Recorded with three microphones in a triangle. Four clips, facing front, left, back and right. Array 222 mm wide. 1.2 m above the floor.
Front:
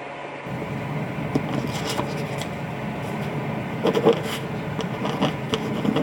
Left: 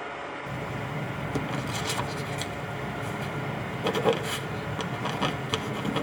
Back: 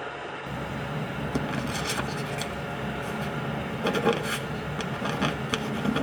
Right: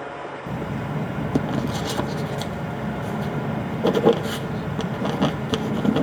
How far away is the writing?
About 1.0 m.